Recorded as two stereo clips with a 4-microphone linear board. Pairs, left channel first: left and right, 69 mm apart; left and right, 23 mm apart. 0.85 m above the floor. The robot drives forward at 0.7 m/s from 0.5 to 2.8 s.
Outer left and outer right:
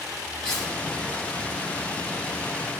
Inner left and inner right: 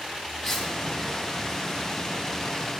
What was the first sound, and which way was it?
Cutlery clinking, 10° left (ahead or behind).